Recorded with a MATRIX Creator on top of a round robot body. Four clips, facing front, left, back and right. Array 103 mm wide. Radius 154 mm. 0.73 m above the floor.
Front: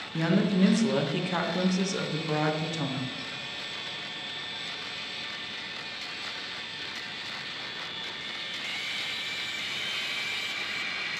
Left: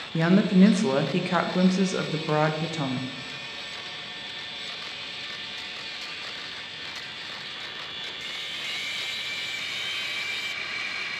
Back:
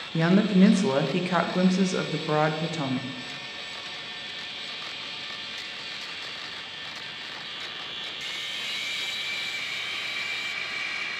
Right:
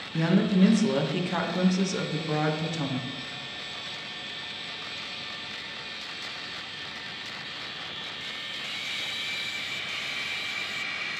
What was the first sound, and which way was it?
A woman speaking, 135° left.